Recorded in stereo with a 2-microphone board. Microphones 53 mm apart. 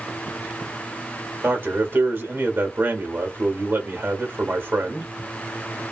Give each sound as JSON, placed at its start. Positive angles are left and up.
{"t": 1.4, "sound": "a man speaking", "side_deg": -40, "distance_m": 1.3}